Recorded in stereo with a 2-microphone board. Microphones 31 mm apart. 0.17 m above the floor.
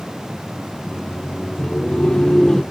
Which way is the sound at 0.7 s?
40° left (ahead or behind).